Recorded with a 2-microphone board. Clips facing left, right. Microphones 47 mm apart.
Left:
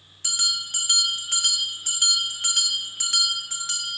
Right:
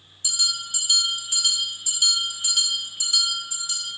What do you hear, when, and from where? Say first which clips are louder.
0.2 s a bell: even; 60° left (ahead or behind), 1.3 m